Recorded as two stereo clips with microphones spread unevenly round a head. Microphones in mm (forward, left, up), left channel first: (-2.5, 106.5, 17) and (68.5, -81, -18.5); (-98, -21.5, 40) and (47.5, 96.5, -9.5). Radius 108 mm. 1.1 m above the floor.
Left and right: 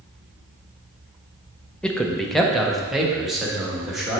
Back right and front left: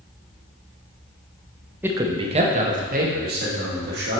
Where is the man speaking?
10° left, 0.6 m; by 4.2 s 15° left, 2.0 m.